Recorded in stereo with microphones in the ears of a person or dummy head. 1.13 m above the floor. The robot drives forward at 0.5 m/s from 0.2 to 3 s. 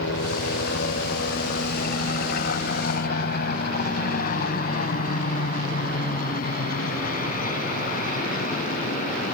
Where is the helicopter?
65° left (ahead or behind); by 9.3 s 50° left (ahead or behind).